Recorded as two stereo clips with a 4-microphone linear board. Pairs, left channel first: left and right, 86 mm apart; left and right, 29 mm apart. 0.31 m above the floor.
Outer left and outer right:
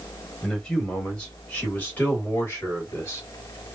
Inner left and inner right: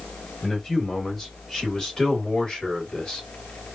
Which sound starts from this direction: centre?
A man speaking, at 0.4 s.